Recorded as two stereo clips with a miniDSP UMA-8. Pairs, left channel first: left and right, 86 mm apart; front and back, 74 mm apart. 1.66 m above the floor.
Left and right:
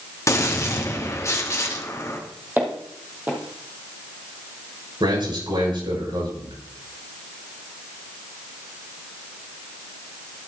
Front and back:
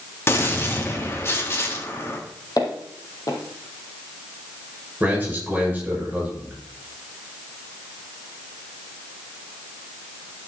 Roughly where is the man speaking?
Right.